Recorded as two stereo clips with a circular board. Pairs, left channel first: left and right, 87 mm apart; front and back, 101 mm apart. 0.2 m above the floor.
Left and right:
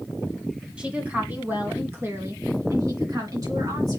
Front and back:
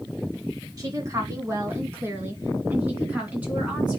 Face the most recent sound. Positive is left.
turn(degrees=-105)